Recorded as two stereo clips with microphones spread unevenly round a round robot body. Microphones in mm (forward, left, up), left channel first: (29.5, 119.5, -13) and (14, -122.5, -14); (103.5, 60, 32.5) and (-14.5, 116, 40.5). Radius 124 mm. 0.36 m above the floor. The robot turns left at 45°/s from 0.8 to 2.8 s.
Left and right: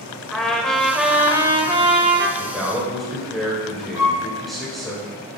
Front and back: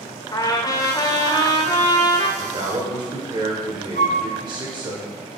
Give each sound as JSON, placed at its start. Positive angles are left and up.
{"t": 0.3, "sound": "a trumpet", "azimuth_deg": 0, "distance_m": 1.1}
{"t": 2.4, "sound": "a man speaking", "azimuth_deg": -165, "distance_m": 1.5}
{"t": 4.0, "sound": "a flute", "azimuth_deg": -15, "distance_m": 3.0}